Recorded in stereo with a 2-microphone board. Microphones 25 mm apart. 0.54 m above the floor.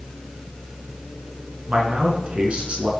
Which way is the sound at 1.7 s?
50° right (ahead or behind).